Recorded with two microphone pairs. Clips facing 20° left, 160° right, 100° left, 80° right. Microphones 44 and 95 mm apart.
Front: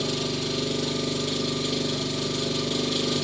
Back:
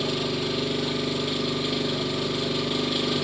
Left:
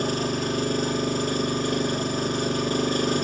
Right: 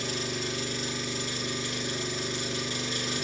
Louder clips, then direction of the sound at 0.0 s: Back 1 dB, left 8 dB; 120° left.